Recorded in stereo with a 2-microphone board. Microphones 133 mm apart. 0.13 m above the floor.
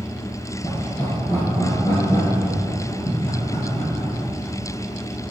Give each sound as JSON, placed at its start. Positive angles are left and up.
{"t": 0.6, "sound": "laughter", "side_deg": 30, "distance_m": 2.5}